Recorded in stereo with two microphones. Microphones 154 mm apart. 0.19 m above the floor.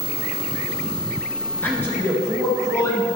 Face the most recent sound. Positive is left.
turn(degrees=20)  # may be behind; listen again after turning